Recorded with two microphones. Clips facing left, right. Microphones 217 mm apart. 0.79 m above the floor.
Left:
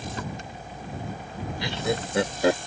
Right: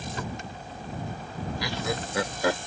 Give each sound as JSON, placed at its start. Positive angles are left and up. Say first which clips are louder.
{"t": 1.6, "sound": "laughter", "louder": "left 5 dB", "side_deg": 30}